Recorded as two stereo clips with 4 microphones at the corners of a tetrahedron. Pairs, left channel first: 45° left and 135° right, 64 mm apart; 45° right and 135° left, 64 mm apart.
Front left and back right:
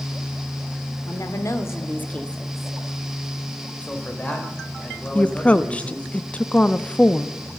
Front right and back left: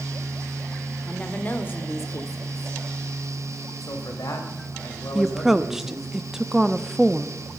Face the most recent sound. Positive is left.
turn(degrees=65)